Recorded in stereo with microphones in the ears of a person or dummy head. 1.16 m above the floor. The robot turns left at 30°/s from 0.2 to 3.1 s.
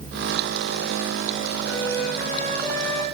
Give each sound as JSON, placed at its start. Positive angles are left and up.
{"t": 1.6, "sound": "a flute", "azimuth_deg": -140, "distance_m": 6.5}